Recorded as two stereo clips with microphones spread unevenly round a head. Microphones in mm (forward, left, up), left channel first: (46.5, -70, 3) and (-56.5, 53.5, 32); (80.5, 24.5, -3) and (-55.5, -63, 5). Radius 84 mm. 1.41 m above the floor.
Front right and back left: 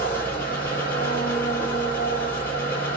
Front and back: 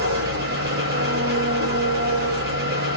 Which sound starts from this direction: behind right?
An engine running, at 0.0 s.